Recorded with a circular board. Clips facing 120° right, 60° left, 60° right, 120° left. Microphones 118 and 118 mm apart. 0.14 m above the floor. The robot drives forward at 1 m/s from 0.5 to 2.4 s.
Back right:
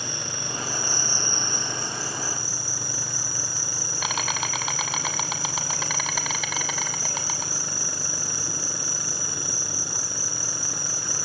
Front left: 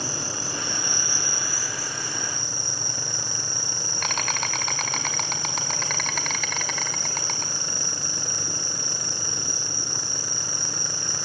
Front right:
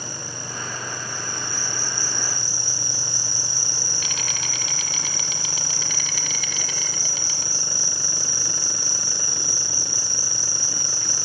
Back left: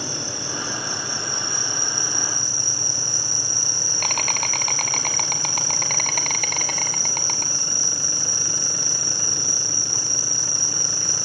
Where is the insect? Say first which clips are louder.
Front left 2 dB, back left 4 dB; 115° left, 1.3 m; by 11.2 s 155° left, 3 m.